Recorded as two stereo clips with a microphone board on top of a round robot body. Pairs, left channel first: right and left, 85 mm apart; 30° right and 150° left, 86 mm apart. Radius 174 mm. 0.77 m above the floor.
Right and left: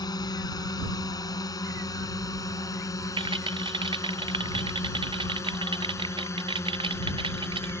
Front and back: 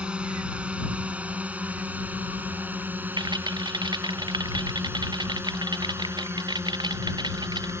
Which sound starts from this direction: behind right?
A drone, at 0.0 s.